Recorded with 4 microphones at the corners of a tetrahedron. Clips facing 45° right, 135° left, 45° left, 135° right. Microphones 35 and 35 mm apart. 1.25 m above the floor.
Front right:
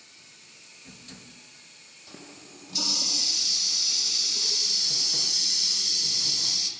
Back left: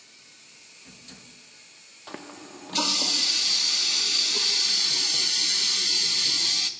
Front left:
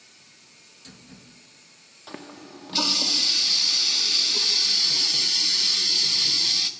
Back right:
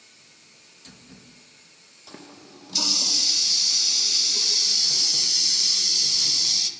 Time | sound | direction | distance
2.1 | a running tap | 100° left | 0.6 m